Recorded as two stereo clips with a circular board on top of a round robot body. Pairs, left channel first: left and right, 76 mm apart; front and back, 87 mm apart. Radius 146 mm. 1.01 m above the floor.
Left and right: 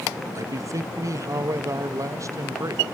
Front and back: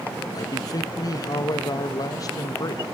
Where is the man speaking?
45° right, 1.0 m.